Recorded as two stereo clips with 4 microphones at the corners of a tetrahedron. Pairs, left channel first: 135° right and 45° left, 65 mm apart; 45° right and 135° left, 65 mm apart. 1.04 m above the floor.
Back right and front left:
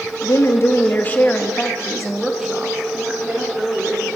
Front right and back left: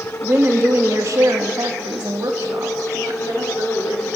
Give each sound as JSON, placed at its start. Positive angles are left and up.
{"t": 0.2, "sound": "a woman speaking", "azimuth_deg": -165, "distance_m": 1.9}